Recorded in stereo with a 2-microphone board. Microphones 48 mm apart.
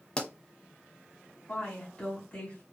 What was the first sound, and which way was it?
A pop, 20° left (ahead or behind).